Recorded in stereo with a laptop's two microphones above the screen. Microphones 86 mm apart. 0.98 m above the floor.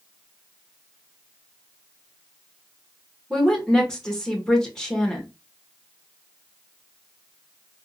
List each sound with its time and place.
3.3 s a woman speaking: 10° left (ahead or behind), 1.4 m